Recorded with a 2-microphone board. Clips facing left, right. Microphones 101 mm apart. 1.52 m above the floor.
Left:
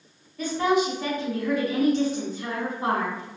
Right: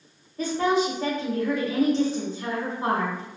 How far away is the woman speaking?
About 1.1 m.